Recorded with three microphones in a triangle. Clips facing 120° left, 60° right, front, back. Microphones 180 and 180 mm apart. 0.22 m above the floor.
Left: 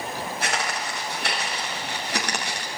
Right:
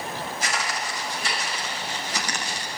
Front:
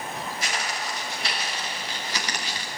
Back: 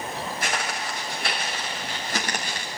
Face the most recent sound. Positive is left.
turn(degrees=140)